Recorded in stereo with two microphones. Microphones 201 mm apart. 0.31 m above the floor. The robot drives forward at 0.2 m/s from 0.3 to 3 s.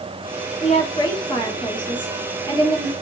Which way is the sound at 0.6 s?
25° left (ahead or behind).